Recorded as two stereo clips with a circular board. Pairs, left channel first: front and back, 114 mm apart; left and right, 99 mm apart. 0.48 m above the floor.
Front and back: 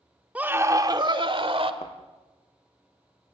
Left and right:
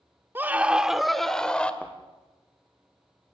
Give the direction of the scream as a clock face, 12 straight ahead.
4 o'clock.